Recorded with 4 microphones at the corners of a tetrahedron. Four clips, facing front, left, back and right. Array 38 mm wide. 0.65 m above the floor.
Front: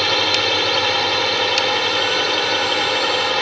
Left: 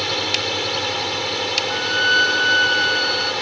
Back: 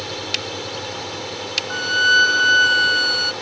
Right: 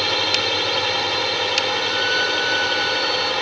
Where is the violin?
160° left.